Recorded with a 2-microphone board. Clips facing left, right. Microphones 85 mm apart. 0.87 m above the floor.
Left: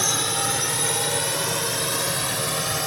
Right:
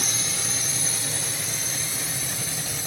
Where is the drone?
55° left (ahead or behind); by 2.9 s 65° left (ahead or behind).